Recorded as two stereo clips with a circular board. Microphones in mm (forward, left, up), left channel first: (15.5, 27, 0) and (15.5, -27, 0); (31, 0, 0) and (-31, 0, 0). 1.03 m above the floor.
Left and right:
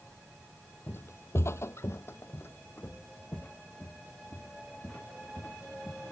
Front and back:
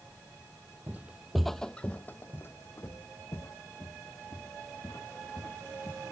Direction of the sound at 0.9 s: 125° left.